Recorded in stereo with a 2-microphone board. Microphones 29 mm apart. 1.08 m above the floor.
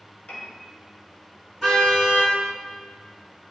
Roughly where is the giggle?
No giggle in this recording.